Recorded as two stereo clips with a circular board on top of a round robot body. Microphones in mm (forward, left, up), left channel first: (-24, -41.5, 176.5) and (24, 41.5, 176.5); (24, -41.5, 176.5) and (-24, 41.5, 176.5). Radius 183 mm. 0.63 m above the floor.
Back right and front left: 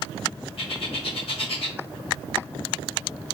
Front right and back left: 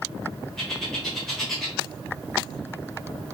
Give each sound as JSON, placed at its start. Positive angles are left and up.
{"t": 0.6, "sound": "a bird", "azimuth_deg": -145, "distance_m": 1.0}